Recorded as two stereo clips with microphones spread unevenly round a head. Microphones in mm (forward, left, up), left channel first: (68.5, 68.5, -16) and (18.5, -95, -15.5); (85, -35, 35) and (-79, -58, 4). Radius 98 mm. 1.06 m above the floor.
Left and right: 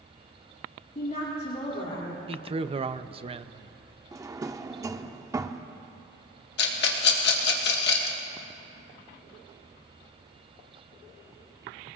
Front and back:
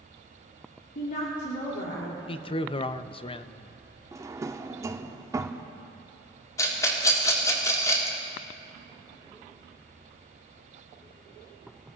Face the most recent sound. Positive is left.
turn(degrees=85)